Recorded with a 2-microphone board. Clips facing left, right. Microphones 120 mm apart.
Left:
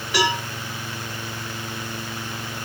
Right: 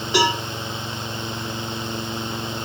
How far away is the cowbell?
About 1.3 m.